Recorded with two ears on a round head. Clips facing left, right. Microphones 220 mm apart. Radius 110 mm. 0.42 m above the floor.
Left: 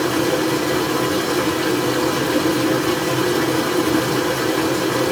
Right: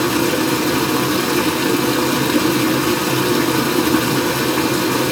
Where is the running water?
50° right (ahead or behind), 1.2 m.